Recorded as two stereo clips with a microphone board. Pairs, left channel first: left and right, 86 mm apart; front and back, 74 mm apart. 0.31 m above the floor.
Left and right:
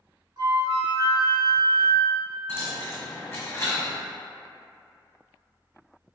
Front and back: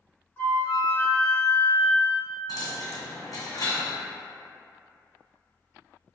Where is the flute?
60° right, 0.7 m.